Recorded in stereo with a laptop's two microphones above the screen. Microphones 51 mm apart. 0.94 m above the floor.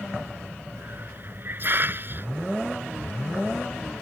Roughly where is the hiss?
Right.